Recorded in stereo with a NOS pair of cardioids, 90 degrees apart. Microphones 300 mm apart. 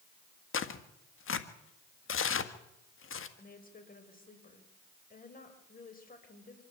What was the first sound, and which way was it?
Tearing paper, 45° left.